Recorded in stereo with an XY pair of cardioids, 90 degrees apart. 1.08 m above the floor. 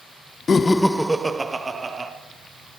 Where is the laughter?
50° left, 0.7 m; by 2.1 s 35° right, 2 m.